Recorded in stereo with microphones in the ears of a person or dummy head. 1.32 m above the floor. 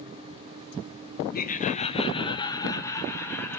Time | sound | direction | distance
1.3 | laughter | 45° left (ahead or behind) | 0.9 m